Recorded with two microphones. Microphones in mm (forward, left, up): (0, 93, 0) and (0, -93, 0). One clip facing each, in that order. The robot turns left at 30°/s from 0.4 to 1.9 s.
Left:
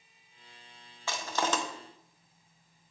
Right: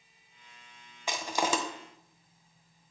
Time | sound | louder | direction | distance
1.1 | crushing | right 1 dB | 15° right (ahead or behind) | 0.7 m